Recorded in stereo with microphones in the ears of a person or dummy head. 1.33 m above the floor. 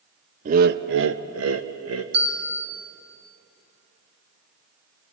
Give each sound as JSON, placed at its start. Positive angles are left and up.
{"t": 0.5, "sound": "laughter", "side_deg": -40, "distance_m": 0.6}
{"t": 2.1, "sound": "a bell", "side_deg": -80, "distance_m": 2.5}